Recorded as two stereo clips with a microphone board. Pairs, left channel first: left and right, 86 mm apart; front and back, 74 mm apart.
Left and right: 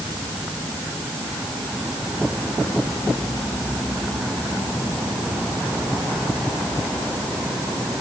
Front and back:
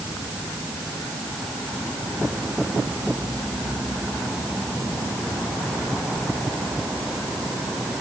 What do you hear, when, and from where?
Only background noise.